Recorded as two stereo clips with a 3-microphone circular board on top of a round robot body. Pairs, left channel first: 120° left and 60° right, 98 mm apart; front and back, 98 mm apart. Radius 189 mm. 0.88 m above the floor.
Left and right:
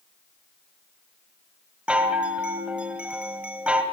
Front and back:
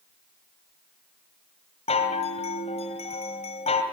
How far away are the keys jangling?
I don't hear keys jangling.